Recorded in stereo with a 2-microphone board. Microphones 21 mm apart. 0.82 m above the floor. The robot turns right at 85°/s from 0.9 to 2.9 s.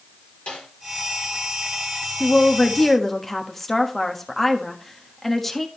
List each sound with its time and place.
0.5 s a snare drum: 80° left, 6 m
2.2 s a woman speaking: 105° left, 1.4 m; by 5.7 s 165° left, 1.4 m